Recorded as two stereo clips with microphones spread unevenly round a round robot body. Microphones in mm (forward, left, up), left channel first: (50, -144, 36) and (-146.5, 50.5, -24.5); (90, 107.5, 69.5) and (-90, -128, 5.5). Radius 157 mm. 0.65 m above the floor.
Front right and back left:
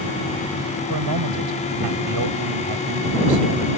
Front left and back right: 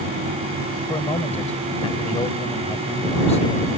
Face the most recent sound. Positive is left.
turn(degrees=125)